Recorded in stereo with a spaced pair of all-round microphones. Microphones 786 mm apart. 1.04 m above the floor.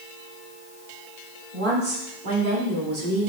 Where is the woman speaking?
75° right (ahead or behind), 3 m; by 3.3 s 70° right (ahead or behind), 1.8 m.